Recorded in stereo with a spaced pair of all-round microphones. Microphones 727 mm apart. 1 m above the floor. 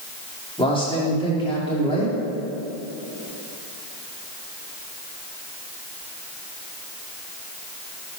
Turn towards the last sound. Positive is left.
turn(degrees=5)  # may be behind; listen again after turning